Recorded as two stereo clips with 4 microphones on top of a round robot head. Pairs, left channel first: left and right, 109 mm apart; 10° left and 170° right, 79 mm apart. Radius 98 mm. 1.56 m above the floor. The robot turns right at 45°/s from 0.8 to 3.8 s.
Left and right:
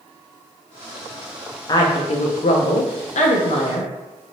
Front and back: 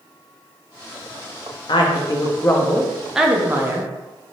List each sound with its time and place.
1.7 s a woman speaking: 35° left, 0.7 m; by 3.9 s 130° left, 0.7 m